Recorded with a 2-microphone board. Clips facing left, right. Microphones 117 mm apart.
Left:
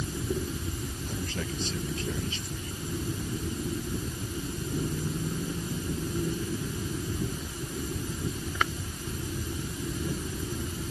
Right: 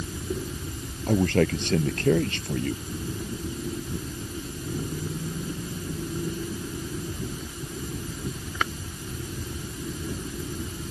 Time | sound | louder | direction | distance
1.1 | a man speaking | right 16 dB | 80° right | ?